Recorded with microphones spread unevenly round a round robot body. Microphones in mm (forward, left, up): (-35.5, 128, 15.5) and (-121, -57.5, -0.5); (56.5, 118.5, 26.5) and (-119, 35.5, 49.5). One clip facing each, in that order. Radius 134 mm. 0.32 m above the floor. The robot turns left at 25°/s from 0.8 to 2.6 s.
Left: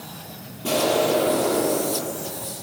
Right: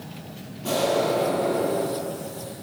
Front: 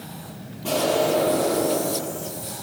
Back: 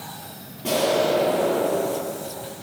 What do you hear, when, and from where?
0.6 s an explosion: 125° left, 9.5 m; by 2.5 s 85° left, 9.5 m